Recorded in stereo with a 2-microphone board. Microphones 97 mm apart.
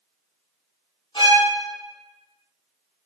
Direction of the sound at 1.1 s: 60° left (ahead or behind).